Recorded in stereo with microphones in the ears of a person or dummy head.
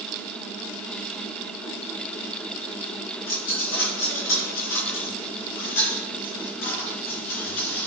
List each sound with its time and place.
3.3 s a dropped coin: 60° left (ahead or behind), 3.5 m